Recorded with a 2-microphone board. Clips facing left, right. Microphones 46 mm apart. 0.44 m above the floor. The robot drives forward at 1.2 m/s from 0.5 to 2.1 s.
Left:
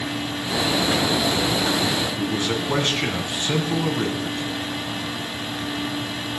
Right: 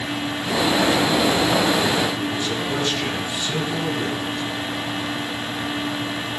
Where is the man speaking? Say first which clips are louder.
Even; 55° left (ahead or behind), 3.5 m.